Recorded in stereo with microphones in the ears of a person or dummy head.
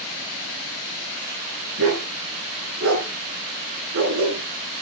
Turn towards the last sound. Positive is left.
turn(degrees=-70)  # may be behind; listen again after turning